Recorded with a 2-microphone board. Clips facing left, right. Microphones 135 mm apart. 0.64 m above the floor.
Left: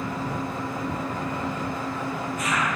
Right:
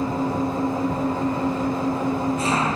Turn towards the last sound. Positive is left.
turn(degrees=-30)  # may be behind; listen again after turning